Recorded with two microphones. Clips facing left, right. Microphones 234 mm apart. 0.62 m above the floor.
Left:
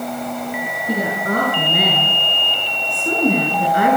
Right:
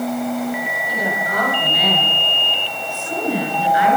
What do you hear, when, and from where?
0.9 s a woman speaking: 60° left (ahead or behind), 9.5 m; by 4.0 s 50° left (ahead or behind), 8.5 m